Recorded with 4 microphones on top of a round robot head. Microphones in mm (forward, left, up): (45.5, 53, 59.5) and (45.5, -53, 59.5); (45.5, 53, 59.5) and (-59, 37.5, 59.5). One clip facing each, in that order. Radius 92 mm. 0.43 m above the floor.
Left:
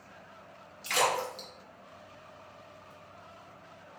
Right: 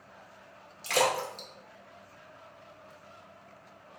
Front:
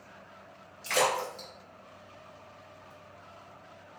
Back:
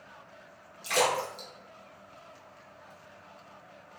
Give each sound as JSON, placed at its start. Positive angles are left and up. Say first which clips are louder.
{"t": 0.8, "sound": "a splash", "louder": "right 1 dB, even", "azimuth_deg": -100, "distance_m": 1.1}